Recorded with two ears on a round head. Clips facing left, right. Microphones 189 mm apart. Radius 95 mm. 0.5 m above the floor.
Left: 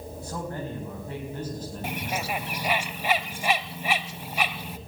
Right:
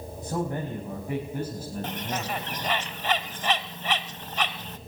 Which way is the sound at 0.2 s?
20° right (ahead or behind).